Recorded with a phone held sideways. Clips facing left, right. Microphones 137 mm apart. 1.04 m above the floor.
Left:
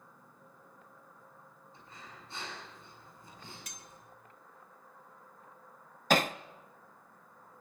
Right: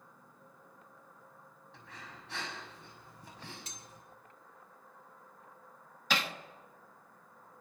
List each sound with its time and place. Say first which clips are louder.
1.7 s breathing: right 1 dB; 85° right, 6 m
3.7 s cutlery clinking: even; 25° right (ahead or behind), 1.4 m
6.1 s hammering: left 8 dB; 45° left (ahead or behind), 0.7 m